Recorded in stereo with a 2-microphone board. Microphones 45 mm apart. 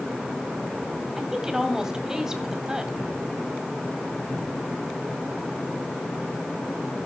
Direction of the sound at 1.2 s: 15° right (ahead or behind).